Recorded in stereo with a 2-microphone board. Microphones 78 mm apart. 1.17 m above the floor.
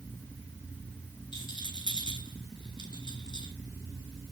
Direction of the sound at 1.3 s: 80° left.